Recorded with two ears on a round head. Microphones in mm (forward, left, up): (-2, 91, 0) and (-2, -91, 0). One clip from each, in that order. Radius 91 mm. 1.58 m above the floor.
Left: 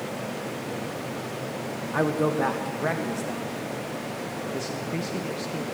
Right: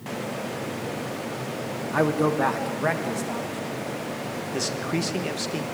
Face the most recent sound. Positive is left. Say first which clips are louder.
# right 7 dB
turn(degrees=-40)  # may be behind; listen again after turning